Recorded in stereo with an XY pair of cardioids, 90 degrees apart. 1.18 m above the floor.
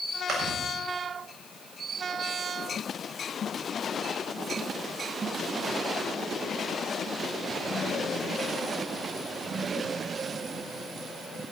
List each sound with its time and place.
0.3 s chewing: 65° right, 7.5 m